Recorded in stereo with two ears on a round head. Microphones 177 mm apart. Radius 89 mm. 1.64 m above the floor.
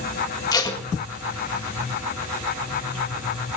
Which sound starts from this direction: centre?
Tape being pulled, at 0.5 s.